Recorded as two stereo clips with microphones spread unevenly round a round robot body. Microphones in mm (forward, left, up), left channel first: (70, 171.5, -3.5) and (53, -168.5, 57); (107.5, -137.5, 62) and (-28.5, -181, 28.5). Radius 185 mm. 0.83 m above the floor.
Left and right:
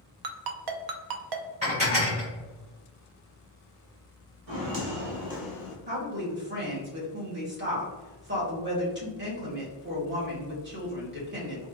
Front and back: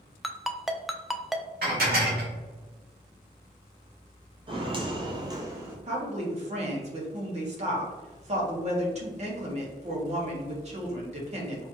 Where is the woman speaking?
155° right, 1.4 m.